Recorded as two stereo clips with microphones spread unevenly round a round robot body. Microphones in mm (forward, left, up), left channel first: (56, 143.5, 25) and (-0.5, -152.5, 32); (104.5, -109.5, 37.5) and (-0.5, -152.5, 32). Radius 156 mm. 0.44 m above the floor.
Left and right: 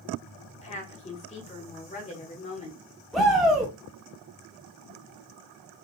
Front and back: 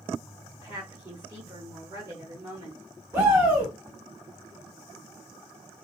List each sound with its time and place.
0.5 s a woman speaking: 140° left, 1.2 m
3.1 s a shout: 165° left, 0.8 m